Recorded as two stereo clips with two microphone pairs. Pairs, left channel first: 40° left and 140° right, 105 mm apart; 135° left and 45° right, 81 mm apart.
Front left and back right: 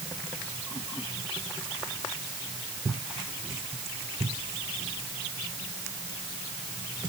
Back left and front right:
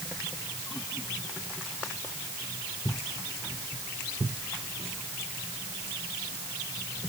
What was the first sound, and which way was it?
Only background noise.